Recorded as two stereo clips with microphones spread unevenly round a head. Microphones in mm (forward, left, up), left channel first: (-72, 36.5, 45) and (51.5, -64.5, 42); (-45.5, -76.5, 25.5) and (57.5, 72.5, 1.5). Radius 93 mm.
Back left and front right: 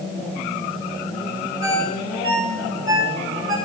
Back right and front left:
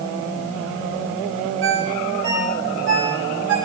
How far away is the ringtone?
About 6 m.